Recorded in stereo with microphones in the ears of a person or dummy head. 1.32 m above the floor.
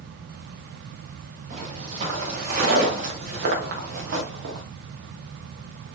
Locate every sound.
1.5 s footsteps: 40° right (ahead or behind), 6.5 m; by 4.6 s 60° right (ahead or behind), 3.5 m